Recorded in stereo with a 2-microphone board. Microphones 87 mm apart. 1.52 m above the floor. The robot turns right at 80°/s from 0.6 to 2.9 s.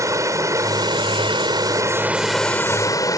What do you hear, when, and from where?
0.0 s running water: 140° right; by 3.2 s 45° left